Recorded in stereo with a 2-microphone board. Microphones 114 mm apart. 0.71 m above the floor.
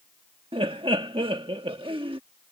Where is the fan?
I don't hear a fan.